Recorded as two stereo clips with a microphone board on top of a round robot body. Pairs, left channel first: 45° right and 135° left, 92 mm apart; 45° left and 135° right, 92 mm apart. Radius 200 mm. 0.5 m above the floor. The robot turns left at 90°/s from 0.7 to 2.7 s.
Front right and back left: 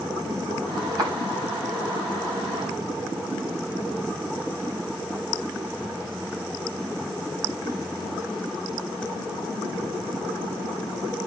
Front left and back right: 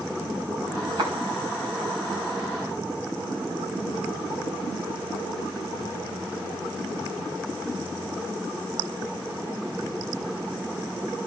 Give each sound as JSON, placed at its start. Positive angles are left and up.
{"t": 1.0, "sound": "footsteps", "azimuth_deg": -170, "distance_m": 4.0}